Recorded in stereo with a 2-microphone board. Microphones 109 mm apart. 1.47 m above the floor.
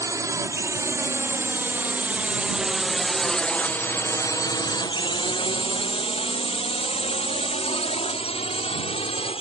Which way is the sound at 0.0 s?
30° right (ahead or behind).